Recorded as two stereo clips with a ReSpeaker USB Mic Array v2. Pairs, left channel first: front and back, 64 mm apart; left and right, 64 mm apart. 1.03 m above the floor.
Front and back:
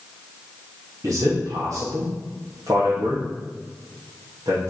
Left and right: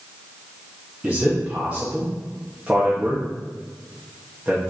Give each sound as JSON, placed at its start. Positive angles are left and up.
{"t": 1.0, "sound": "a man speaking", "azimuth_deg": -165, "distance_m": 1.8}